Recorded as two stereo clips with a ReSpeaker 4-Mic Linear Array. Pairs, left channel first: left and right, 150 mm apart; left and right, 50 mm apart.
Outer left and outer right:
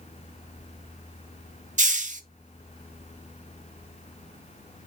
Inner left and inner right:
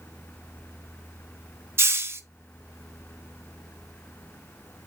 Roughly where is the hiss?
Right.